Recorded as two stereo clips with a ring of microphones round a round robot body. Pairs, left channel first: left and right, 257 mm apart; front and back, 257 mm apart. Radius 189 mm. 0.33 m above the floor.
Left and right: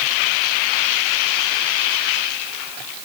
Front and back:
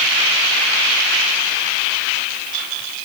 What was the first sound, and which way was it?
Only background noise.